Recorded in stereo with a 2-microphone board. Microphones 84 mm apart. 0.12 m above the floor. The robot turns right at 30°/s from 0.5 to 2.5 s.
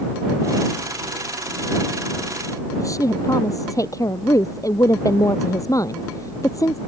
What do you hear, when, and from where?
2.8 s a woman speaking: 45° left (ahead or behind)